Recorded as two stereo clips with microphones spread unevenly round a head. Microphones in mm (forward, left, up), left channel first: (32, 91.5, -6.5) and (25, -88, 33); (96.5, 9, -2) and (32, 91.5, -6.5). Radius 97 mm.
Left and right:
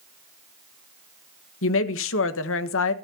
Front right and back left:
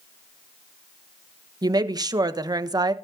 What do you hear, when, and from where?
1.6 s a woman speaking: 75° left, 1.3 m